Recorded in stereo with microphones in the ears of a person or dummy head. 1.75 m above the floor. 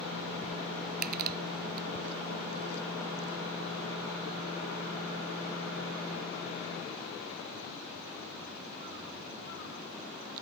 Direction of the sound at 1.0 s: 50° right (ahead or behind).